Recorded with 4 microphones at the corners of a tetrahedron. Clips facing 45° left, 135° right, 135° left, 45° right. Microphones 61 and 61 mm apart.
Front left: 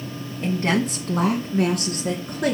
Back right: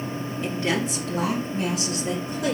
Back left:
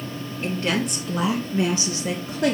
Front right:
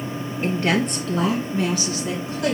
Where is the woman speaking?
30° left, 1.6 m; by 2.6 s 80° left, 3.5 m.